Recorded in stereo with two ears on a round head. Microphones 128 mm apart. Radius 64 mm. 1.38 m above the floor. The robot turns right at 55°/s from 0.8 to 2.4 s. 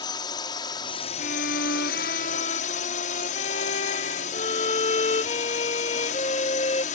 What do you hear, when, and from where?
0.0 s a drone: 30° left; by 6.9 s 120° left
1.2 s a violin: 65° left; by 6.8 s 130° left